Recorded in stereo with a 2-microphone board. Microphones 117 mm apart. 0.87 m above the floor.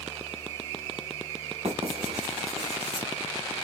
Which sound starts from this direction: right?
Writing, at 1.6 s.